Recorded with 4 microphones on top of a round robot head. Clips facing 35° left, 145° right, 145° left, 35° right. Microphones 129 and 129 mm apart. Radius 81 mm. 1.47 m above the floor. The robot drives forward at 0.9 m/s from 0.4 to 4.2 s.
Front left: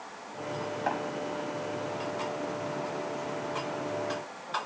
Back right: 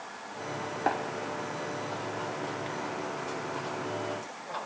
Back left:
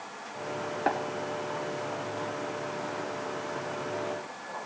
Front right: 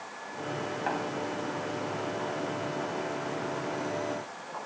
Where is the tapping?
170° left, 2.5 m.